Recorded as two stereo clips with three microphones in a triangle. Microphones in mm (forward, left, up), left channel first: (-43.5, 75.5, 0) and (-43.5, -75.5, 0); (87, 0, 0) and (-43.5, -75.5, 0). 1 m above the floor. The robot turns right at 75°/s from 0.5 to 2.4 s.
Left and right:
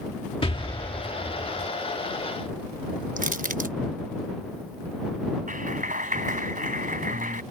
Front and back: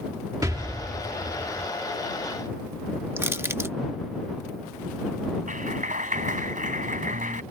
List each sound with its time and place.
0.4 s an explosion: 145° left; by 1.7 s 125° right
3.2 s crushing: 75° right
5.5 s a clap: 120° right